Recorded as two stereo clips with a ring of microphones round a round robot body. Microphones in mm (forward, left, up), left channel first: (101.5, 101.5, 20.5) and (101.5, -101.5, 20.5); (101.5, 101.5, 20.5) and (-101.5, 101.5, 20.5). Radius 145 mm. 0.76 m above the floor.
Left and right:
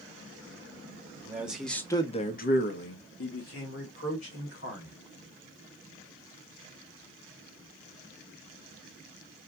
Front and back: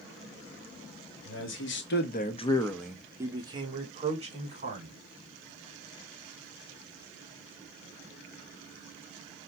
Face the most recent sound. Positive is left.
turn(degrees=125)